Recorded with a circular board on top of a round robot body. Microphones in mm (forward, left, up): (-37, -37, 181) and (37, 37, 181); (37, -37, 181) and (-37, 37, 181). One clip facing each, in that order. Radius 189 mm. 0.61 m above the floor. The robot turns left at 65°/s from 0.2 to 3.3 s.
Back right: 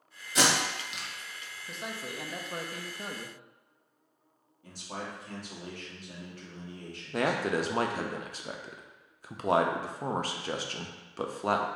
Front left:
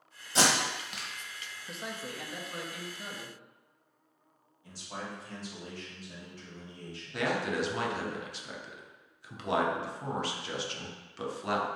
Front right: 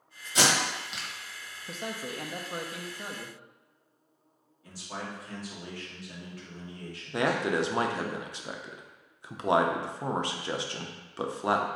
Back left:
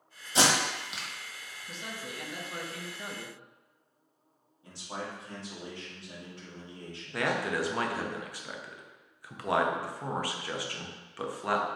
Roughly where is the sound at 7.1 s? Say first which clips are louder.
Back right 3 dB, front right 3 dB; right.